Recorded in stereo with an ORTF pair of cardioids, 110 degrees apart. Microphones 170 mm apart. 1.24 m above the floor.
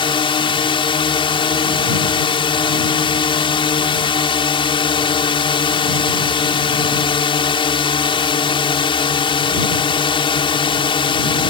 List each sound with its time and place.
0.0 s a drone: 35° left